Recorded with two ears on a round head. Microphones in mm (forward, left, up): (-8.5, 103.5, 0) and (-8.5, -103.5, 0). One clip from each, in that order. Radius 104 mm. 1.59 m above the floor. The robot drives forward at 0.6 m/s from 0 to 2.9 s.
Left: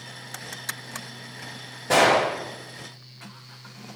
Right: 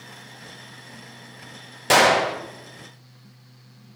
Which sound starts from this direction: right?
A gunshot, at 1.9 s.